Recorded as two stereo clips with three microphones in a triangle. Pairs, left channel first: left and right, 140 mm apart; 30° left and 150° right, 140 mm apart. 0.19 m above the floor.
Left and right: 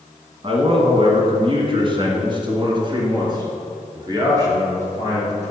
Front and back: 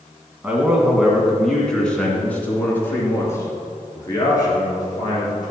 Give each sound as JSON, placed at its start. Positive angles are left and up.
{"t": 0.4, "sound": "a man speaking", "azimuth_deg": -75, "distance_m": 1.9}